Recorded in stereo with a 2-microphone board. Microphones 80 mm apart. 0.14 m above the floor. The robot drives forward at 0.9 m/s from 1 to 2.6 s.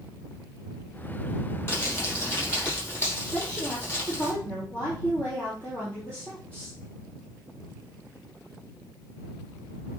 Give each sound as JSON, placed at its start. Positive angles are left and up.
{"t": 1.7, "sound": "crumpling", "side_deg": 25, "distance_m": 5.0}
{"t": 3.3, "sound": "a woman speaking", "side_deg": 15, "distance_m": 4.0}